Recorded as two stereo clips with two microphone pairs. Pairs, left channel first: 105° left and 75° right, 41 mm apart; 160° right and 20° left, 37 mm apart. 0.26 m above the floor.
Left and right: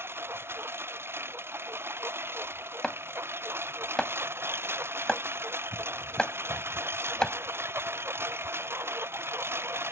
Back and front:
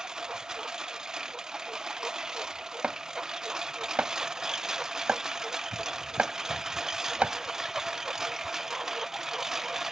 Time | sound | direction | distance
0.0 | a lawn mower | 55° right | ?
2.8 | chopping | 50° left | ?